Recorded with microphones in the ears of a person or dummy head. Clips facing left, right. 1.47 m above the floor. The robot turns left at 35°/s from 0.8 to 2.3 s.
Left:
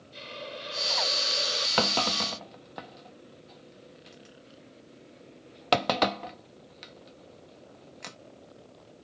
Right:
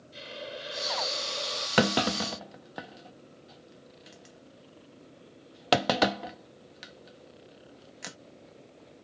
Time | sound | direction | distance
0.1 | a hiss | 175° right | ?
1.8 | a clunk | 25° right (ahead or behind) | ?